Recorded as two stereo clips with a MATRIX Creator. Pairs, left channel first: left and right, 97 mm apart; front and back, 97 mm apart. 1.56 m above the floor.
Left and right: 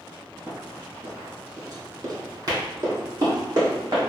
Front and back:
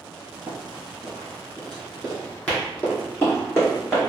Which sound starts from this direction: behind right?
Running footsteps, at 0.5 s.